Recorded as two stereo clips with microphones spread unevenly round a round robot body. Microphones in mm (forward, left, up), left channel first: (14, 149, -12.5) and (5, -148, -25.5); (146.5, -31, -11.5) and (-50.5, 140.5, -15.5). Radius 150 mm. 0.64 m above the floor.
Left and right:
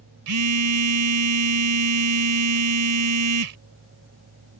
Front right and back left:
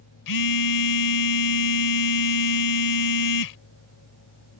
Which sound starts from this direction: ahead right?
A phone buzzing, at 0.3 s.